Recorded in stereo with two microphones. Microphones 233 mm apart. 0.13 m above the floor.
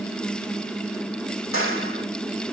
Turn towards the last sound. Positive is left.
turn(degrees=65)  # may be behind; listen again after turning